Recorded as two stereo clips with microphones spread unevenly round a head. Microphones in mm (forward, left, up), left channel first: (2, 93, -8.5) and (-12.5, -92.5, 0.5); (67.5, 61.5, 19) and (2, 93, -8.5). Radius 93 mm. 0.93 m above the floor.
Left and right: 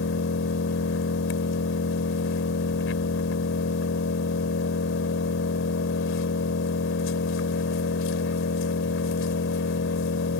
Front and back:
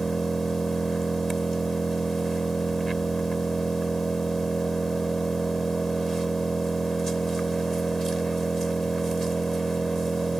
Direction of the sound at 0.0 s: 60° left.